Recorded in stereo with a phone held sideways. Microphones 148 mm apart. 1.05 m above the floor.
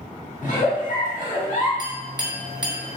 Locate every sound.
0.4 s a giggle: 55° left (ahead or behind), 0.8 m
1.8 s a clink: 25° right (ahead or behind), 0.7 m